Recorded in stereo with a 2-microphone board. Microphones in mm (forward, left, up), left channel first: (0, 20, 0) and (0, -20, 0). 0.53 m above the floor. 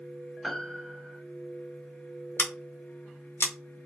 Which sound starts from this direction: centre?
A piano, at 0.4 s.